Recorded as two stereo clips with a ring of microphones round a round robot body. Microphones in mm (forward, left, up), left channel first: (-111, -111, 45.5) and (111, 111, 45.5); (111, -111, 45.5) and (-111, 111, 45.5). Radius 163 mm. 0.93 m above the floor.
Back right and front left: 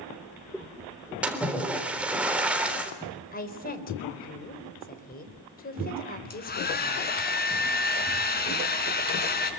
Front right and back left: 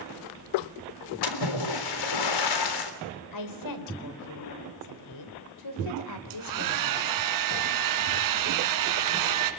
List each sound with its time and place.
1.2 s a splash: 40° right, 3.5 m
3.3 s a woman speaking: 70° right, 4 m
6.3 s a hair dryer: 165° left, 3.5 m